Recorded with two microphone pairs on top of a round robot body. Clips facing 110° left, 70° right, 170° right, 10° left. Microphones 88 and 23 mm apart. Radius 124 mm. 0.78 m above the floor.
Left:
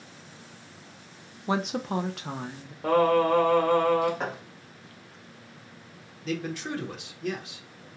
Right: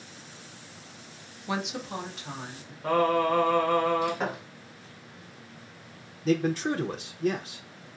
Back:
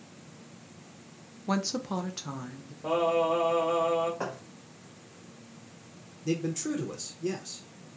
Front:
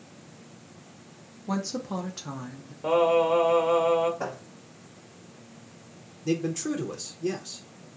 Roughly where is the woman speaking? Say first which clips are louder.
Left 4 dB, even; behind left.